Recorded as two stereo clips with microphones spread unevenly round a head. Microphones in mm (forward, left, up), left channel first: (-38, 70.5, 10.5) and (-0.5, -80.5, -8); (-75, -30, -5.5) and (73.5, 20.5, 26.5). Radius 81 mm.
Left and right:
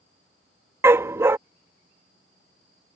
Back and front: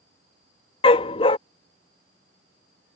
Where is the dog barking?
140° right.